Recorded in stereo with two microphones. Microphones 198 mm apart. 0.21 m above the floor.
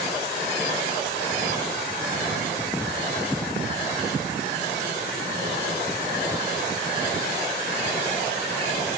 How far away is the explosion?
No explosion in this recording.